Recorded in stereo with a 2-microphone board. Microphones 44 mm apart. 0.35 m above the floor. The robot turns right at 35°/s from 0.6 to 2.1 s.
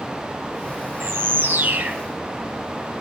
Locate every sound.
1.0 s a bird: 80° right, 1.1 m; by 2.0 s 45° right, 1.1 m